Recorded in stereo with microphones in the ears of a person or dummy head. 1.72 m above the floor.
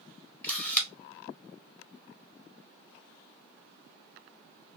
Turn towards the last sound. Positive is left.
turn(degrees=10)  # may be behind; listen again after turning